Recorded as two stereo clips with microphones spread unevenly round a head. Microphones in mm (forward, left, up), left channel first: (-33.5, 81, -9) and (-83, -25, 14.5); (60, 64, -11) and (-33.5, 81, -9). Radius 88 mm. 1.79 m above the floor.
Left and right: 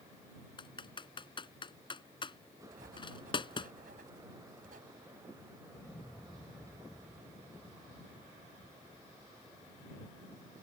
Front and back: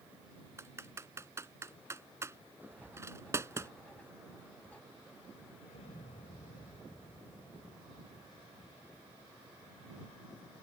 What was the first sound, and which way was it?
Typing on a keyboard, 115° left.